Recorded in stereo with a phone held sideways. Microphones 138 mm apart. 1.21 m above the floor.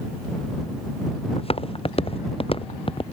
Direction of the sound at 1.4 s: 45° left (ahead or behind).